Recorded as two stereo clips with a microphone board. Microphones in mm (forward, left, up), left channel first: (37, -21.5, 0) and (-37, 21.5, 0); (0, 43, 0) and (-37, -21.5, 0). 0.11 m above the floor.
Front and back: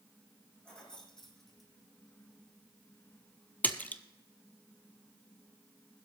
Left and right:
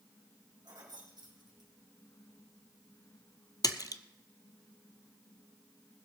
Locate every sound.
0.7 s keys jangling: 110° right, 4.5 m; by 1.7 s 120° right, 3 m
3.6 s a splash: 40° left, 0.8 m